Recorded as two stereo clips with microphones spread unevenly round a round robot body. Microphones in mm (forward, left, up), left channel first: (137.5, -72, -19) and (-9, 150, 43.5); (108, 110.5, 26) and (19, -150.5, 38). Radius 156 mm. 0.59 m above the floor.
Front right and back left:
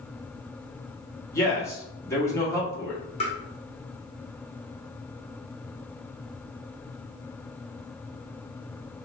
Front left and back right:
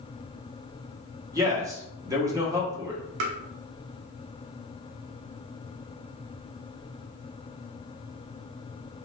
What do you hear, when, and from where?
1.3 s a man speaking: 40° right, 1.1 m
3.2 s tapping: 125° right, 0.7 m